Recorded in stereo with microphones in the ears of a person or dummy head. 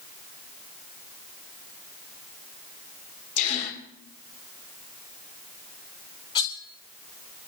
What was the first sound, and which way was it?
A gasp, 40° left (ahead or behind).